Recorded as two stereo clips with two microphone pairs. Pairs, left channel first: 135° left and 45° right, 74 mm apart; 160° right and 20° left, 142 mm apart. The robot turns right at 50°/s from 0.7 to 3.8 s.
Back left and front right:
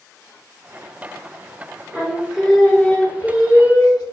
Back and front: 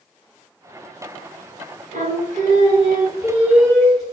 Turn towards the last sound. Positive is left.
turn(degrees=115)